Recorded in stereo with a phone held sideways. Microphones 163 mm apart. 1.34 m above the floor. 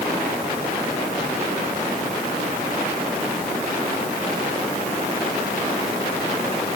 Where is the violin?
I don't hear a violin.